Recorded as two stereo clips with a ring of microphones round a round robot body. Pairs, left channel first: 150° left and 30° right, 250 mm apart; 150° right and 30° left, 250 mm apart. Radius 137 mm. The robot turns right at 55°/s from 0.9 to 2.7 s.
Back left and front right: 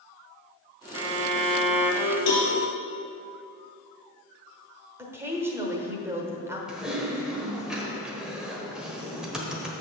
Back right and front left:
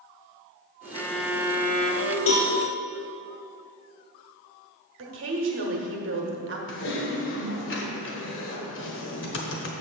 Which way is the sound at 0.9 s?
75° right.